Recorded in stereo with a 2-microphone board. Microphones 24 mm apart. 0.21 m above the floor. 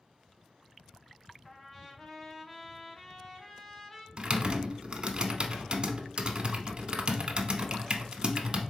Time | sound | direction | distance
1.4 | a trumpet | 15° left (ahead or behind) | 0.6 m
4.2 | typing on a keyboard | 35° right (ahead or behind) | 0.6 m